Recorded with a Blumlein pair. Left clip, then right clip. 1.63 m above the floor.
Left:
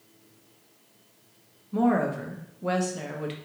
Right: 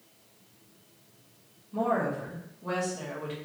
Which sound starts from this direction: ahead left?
A woman speaking, at 1.7 s.